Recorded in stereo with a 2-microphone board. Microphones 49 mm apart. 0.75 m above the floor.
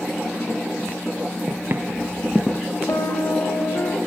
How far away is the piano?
About 1.6 m.